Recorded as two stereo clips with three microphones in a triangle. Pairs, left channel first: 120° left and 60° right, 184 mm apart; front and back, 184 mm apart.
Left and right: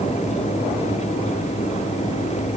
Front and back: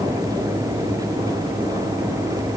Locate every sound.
Only background noise.